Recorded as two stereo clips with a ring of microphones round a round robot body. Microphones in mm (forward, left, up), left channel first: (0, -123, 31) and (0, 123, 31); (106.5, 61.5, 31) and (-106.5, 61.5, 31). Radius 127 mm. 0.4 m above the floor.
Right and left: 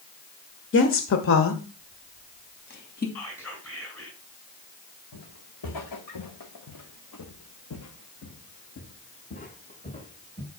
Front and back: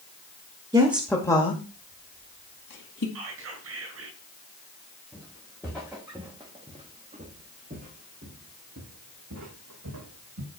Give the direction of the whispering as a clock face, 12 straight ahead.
6 o'clock.